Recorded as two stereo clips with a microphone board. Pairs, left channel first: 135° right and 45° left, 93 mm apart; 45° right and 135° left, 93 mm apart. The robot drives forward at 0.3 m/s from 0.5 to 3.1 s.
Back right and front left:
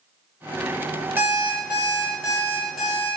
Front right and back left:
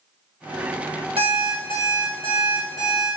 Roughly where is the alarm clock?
Left.